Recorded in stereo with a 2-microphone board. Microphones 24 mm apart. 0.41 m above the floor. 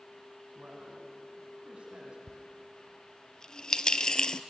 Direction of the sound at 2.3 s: 35° left (ahead or behind).